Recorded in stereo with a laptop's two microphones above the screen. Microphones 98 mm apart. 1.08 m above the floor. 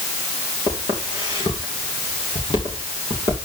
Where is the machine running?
No machine running in this recording.